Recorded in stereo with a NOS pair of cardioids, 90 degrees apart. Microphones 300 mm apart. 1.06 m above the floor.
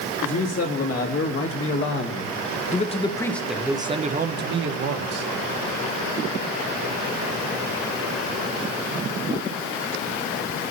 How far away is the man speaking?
About 2.5 m.